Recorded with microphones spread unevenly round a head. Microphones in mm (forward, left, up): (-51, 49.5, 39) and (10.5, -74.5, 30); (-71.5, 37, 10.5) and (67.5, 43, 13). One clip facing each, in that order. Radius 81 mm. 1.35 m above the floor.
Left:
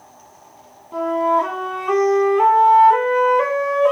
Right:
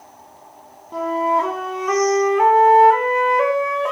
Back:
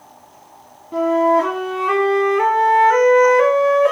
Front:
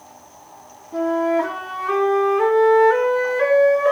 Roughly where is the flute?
Behind right.